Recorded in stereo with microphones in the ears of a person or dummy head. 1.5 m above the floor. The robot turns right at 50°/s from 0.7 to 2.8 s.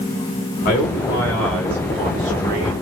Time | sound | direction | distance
0.7 | a man speaking | 140° left | 2 m